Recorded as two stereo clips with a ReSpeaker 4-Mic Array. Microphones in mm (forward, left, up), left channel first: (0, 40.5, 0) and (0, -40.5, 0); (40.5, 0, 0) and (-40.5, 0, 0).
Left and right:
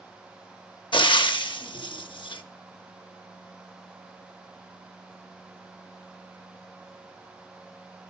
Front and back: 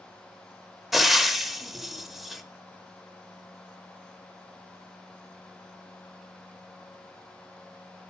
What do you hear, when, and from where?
0.9 s frying: 90° left, 0.6 m